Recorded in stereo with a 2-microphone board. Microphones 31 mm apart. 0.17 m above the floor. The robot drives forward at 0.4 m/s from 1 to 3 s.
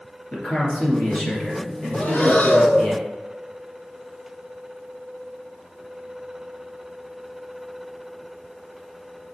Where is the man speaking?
35° left (ahead or behind), 2.5 m; by 2.9 s 25° left (ahead or behind), 3.5 m.